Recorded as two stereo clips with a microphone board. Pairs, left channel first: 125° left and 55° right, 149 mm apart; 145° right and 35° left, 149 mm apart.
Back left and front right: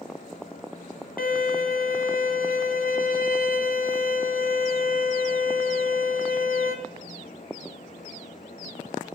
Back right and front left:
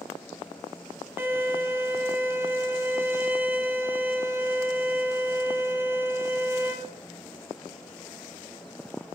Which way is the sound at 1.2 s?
110° left.